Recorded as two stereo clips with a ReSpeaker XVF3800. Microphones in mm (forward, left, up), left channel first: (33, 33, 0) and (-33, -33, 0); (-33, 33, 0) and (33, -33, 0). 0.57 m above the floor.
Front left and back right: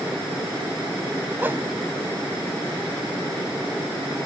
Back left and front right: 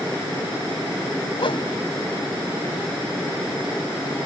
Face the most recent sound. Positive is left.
turn(degrees=160)